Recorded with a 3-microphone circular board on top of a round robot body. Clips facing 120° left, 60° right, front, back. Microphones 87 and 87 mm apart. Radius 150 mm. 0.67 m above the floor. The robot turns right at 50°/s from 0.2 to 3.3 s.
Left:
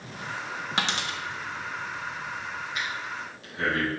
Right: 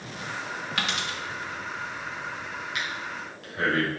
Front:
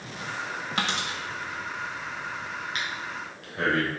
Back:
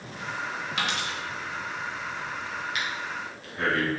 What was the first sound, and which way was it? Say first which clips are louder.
A dropped coin: left 2 dB, front 1 dB; 55° left.